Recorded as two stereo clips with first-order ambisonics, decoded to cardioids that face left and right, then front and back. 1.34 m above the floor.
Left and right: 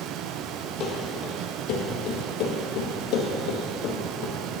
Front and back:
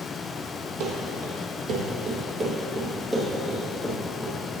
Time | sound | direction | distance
0.8 | running footsteps | 145° left | 3 m